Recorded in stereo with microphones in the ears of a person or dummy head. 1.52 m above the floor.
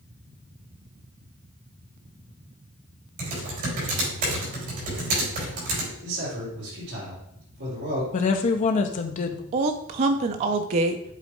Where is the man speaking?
60° right (ahead or behind), 4 m.